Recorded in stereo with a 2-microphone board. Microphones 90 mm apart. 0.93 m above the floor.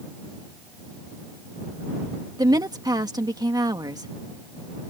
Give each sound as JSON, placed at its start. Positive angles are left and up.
{"t": 2.4, "sound": "a woman speaking", "side_deg": -45}